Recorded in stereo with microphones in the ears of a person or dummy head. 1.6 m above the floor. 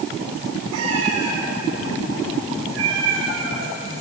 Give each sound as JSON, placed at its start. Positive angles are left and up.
{"t": 0.7, "sound": "a cat meowing", "side_deg": -70, "distance_m": 8.5}